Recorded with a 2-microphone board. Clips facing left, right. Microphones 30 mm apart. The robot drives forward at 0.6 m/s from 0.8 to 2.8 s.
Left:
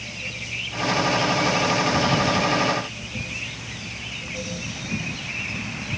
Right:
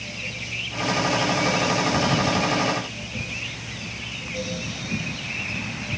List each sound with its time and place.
Only background noise.